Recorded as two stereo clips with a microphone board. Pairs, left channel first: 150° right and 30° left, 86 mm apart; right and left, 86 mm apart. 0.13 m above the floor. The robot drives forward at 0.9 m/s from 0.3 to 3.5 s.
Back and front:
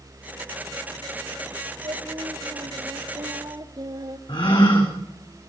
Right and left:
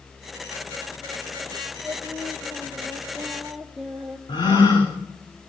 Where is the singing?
5° left, 4 m.